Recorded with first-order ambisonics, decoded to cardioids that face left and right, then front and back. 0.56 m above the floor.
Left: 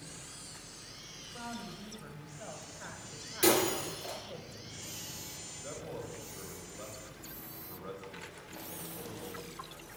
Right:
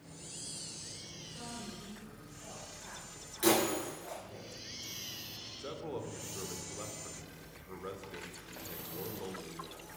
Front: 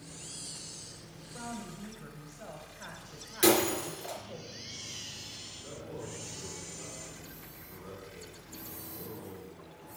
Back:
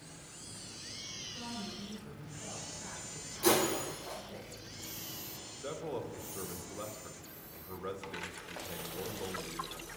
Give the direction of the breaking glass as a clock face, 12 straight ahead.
12 o'clock.